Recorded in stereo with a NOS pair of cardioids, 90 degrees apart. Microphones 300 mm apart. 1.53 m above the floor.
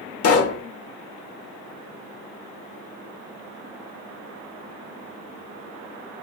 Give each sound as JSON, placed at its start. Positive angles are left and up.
{"t": 0.2, "sound": "a pop", "azimuth_deg": 50, "distance_m": 0.6}